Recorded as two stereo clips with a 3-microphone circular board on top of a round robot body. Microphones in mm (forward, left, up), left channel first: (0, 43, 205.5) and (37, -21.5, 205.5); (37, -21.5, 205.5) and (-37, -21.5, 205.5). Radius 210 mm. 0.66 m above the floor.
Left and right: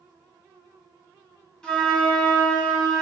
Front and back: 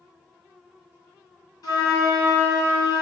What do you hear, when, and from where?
1.6 s a flute: 40° left, 3 m